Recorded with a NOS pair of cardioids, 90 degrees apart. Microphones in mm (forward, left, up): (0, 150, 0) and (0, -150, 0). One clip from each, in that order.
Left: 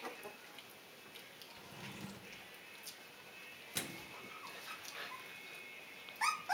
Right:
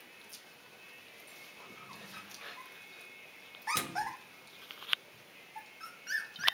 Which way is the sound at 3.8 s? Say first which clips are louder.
Right 8 dB; 25° right.